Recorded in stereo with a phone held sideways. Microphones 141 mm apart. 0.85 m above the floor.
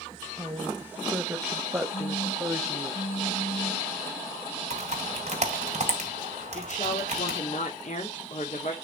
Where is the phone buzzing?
70° left (ahead or behind), 4 m.